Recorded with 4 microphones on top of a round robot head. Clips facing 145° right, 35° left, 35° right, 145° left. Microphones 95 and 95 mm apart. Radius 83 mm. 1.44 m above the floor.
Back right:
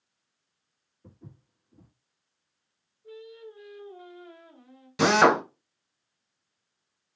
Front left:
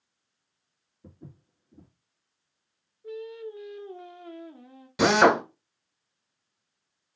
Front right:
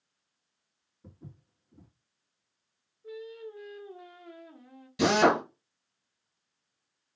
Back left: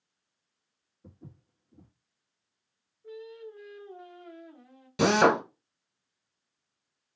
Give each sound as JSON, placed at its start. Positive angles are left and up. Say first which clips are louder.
{"t": 1.0, "sound": "footsteps", "louder": "front left 3 dB, even", "azimuth_deg": 30, "distance_m": 2.0}
{"t": 3.0, "sound": "singing", "louder": "front left 7 dB, front right 1 dB", "azimuth_deg": 45, "distance_m": 0.7}
{"t": 5.0, "sound": "a drill", "louder": "front left 1 dB, back left 1 dB", "azimuth_deg": 120, "distance_m": 1.1}